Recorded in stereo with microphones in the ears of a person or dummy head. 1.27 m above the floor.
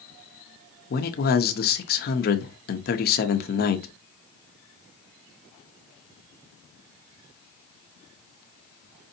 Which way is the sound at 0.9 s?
40° left (ahead or behind).